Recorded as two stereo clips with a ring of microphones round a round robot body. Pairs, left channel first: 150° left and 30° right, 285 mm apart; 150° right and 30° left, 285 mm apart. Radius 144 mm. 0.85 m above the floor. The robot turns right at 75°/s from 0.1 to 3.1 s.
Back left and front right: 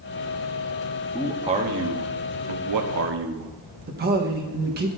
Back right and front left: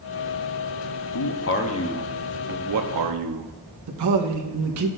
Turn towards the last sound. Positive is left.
turn(degrees=25)